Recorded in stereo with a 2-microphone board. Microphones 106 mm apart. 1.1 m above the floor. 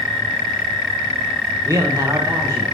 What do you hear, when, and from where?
1.6 s a man speaking: 30° right (ahead or behind), 0.6 m